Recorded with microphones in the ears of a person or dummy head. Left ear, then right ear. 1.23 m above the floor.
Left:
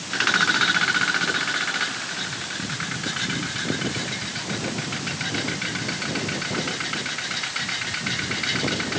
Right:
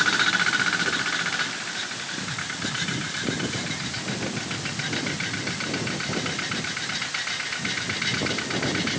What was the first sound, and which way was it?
Only background noise.